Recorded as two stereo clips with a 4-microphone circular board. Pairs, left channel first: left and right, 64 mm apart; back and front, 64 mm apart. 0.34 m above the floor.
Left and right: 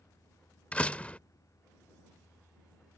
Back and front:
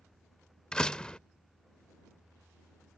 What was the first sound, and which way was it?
A door slam, 120° left.